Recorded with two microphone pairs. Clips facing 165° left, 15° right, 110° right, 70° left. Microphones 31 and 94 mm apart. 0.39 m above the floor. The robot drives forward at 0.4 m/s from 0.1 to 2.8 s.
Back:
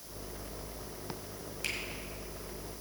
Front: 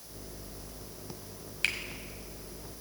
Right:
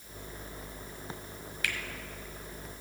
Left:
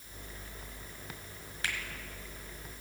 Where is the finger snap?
10° left, 1.7 m.